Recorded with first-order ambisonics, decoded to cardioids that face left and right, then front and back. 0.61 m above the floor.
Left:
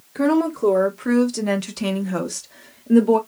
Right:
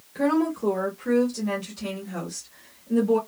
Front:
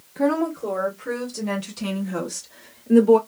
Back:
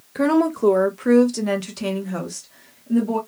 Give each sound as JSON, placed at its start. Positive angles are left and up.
{"t": 0.1, "sound": "a woman speaking", "azimuth_deg": 160, "distance_m": 1.3}